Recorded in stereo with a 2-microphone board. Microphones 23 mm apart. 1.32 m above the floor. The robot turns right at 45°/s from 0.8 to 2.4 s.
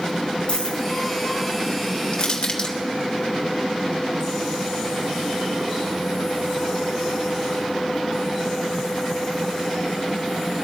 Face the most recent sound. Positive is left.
turn(degrees=40)  # may be behind; listen again after turning